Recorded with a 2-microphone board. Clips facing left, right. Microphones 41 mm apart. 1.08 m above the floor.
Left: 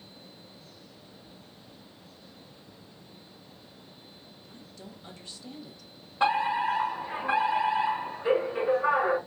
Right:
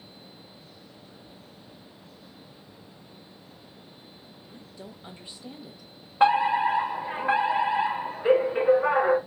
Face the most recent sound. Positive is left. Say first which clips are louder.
# right 5 dB
turn(degrees=-25)  # may be behind; listen again after turning